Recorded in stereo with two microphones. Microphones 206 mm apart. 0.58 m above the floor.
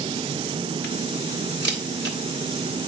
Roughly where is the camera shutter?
Right.